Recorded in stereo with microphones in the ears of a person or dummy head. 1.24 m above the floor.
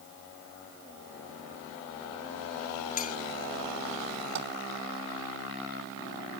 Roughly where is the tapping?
Right.